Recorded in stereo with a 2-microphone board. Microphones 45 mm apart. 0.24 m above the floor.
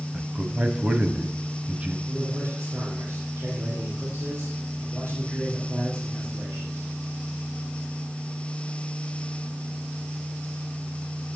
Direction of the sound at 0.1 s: 25° right (ahead or behind).